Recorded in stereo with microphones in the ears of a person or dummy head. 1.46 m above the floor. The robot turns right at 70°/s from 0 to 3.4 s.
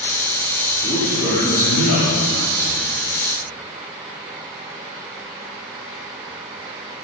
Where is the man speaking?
15° left, 4 m; by 2.9 s 160° left, 4 m.